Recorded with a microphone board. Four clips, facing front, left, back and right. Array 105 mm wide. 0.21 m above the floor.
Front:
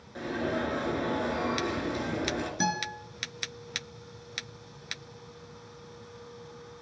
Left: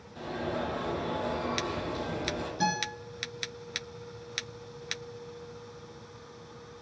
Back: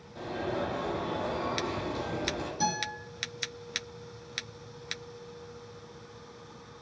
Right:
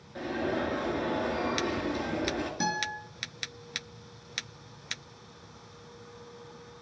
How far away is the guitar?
About 4 m.